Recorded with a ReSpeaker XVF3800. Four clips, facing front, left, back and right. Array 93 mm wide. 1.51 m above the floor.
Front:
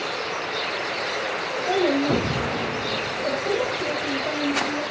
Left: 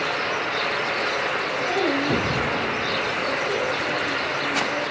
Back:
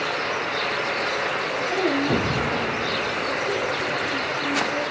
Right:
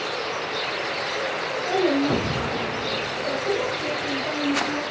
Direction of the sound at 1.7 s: Straight ahead.